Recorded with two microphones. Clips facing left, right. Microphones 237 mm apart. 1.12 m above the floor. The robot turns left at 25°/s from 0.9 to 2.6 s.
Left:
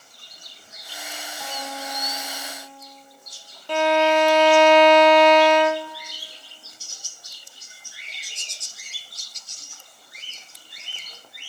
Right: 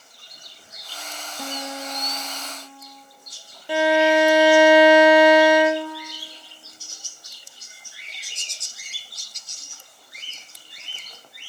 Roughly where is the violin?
Centre.